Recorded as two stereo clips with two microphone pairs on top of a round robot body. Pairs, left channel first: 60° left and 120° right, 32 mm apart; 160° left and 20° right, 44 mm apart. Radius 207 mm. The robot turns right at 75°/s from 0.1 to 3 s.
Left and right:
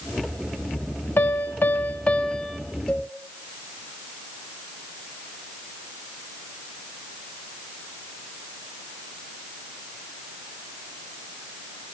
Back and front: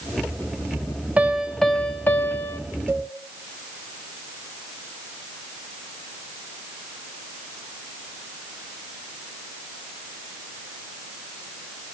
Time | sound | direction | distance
1.2 | a piano | 45° left | 0.8 m
2.9 | a cowbell | straight ahead | 2 m